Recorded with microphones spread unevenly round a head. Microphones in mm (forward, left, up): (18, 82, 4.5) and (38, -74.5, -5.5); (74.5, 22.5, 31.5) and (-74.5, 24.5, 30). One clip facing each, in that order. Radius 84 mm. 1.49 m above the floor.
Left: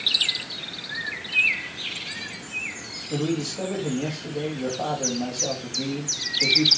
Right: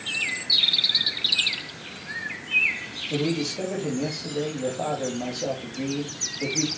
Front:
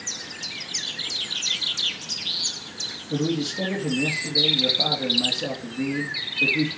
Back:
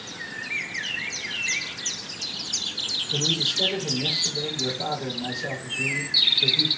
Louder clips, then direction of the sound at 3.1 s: Even, front 6 dB; 5° right.